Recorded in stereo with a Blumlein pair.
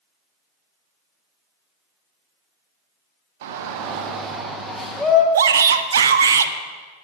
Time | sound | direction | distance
3.4 | a shout | 55° right | 1.5 m
5.3 | a shout | 65° right | 0.8 m